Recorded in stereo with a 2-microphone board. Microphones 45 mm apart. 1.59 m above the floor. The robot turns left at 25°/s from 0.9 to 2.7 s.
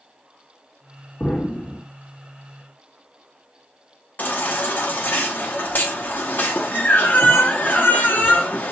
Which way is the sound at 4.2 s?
45° left (ahead or behind).